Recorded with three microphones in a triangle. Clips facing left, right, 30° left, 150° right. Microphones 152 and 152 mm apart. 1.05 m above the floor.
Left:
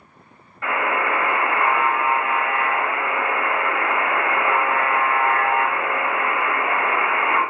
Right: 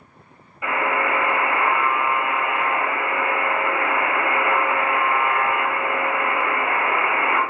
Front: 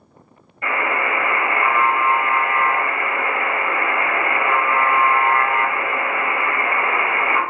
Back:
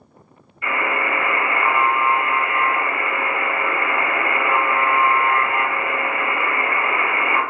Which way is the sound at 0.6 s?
10° right.